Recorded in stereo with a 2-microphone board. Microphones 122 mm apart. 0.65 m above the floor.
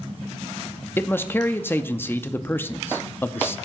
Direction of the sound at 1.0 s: 15° left (ahead or behind).